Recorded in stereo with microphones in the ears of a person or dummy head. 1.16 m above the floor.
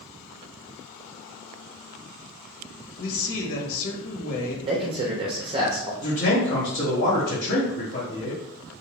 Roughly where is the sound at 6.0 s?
Left.